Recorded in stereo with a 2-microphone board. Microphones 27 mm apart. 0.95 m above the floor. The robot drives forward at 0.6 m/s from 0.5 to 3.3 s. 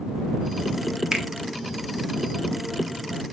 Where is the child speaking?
No child speaking in this recording.